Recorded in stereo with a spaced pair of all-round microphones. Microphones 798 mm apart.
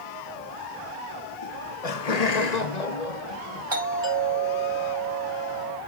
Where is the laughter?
35° left (ahead or behind), 0.7 m; by 3.6 s 65° left (ahead or behind), 1.9 m.